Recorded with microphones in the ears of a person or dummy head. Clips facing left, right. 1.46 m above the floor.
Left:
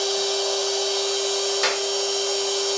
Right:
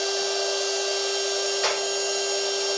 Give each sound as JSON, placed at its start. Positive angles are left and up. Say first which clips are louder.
{"t": 0.0, "sound": "a machine running", "louder": "left 2 dB", "side_deg": 85, "distance_m": 2.5}
{"t": 1.6, "sound": "a clap", "louder": "left 1 dB", "side_deg": 65, "distance_m": 2.0}